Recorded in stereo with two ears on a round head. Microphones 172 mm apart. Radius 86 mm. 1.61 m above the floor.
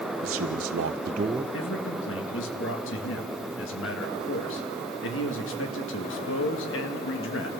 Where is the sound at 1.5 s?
70° left (ahead or behind), 1.8 m.